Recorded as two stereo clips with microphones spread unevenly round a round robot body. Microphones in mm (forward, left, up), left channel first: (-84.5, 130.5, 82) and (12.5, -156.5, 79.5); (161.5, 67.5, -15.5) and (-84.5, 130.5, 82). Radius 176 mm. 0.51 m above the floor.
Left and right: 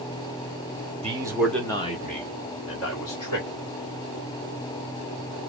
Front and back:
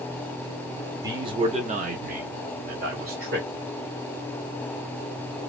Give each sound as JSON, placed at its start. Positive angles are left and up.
{"t": 1.0, "sound": "a man speaking", "azimuth_deg": -75, "distance_m": 0.8}